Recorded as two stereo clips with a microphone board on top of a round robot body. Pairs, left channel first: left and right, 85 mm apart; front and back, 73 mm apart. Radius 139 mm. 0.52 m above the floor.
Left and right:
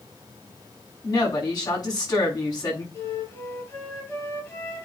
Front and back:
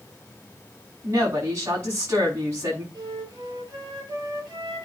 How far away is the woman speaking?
About 6 m.